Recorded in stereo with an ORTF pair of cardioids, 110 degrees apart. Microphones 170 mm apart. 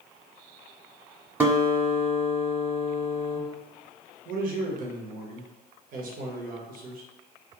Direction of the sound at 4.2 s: 60° right.